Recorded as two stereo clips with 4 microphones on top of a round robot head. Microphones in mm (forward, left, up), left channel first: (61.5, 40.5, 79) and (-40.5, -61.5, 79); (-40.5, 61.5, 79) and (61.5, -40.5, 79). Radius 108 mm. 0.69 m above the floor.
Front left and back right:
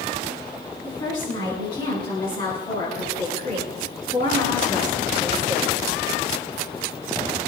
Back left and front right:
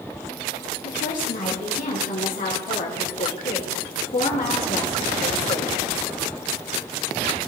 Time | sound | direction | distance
0.8 | a woman speaking | 105° left | 8 m